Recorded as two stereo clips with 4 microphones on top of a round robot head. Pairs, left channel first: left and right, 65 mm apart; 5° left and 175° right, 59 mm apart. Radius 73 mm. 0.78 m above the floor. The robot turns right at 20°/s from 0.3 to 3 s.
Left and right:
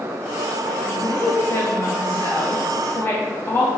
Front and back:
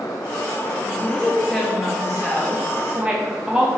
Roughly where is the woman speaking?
Left.